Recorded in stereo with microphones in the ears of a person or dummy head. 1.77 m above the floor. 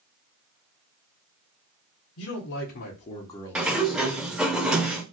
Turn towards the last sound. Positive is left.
turn(degrees=0)  # may be behind; listen again after turning